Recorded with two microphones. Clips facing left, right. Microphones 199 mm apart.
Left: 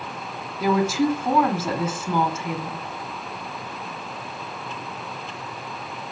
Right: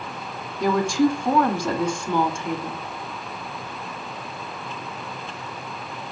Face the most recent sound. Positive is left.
turn(degrees=5)  # may be behind; listen again after turning